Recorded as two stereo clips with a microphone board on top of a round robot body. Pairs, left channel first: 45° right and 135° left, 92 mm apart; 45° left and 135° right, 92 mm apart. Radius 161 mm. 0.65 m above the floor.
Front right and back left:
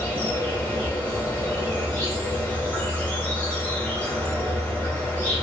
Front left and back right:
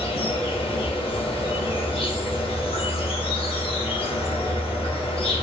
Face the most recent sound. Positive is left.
turn(degrees=30)